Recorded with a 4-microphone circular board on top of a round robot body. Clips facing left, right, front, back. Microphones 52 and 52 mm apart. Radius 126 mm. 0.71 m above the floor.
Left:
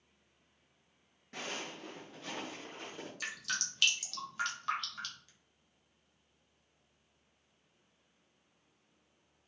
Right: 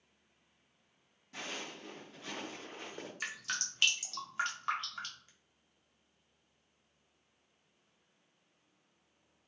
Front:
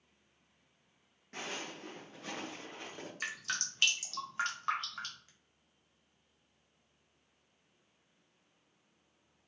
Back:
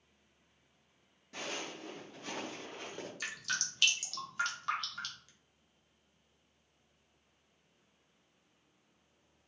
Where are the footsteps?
45° left, 0.8 m; by 3.1 s 90° right, 0.7 m.